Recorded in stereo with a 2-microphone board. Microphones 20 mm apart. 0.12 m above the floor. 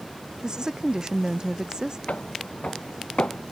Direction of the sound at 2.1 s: 80° left.